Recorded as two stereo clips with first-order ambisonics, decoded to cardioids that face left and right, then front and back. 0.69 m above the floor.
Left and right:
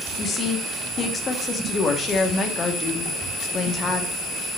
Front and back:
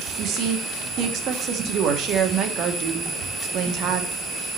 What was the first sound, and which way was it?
A woman speaking, 145° left.